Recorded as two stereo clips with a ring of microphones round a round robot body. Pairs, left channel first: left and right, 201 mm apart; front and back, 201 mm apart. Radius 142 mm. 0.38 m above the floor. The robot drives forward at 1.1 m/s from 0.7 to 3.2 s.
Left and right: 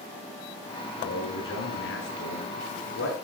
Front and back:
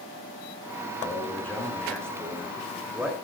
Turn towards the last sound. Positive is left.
turn(degrees=100)